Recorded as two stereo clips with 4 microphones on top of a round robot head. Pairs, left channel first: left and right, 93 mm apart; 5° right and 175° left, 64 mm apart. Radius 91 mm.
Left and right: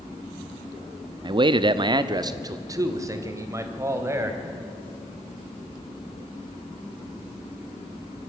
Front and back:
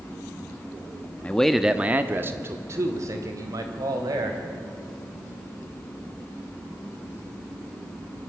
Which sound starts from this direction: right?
A man speaking, at 1.2 s.